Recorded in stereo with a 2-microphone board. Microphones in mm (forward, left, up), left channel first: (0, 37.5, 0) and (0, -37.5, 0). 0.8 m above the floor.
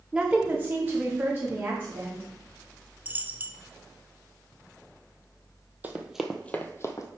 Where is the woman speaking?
10° right (ahead or behind), 0.8 m; by 2.2 s 30° right (ahead or behind), 2.5 m.